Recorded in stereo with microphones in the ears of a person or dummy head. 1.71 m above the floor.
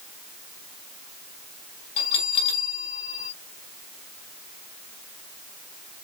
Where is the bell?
30° left (ahead or behind), 4 m.